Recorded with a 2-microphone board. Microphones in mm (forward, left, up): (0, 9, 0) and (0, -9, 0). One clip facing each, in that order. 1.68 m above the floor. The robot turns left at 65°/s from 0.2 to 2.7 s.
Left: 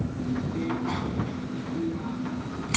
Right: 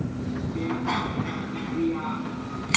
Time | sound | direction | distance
0.6 | a bicycle bell | 10° right | ?